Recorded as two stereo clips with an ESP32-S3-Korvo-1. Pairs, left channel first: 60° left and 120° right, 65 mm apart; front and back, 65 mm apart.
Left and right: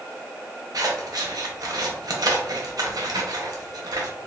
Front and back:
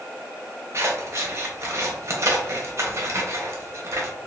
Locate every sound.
0.7 s scissors: 135° right, 0.8 m